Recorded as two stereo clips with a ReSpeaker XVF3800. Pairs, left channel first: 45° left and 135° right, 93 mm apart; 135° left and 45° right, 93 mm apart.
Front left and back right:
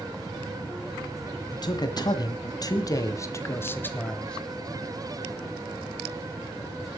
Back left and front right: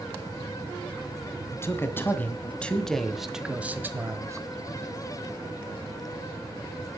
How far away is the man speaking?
About 2 m.